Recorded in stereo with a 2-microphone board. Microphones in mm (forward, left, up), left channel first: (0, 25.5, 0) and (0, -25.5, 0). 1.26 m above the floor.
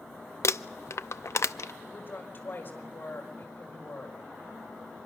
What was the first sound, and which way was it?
Crumpling, 65° left (ahead or behind).